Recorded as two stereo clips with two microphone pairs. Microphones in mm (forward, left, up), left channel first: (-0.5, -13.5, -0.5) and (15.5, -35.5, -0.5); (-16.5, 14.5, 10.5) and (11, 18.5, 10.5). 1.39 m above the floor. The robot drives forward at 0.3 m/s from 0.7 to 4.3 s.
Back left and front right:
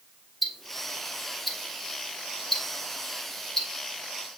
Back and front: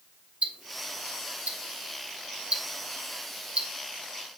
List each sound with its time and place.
0.4 s ticking: 35° left, 1.7 m; by 3.7 s 60° left, 1.1 m